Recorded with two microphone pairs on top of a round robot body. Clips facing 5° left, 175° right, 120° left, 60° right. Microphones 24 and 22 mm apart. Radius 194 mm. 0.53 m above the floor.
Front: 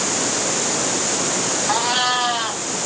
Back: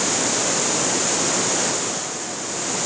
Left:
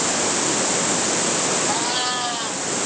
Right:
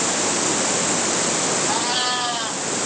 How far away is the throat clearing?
I don't hear throat clearing.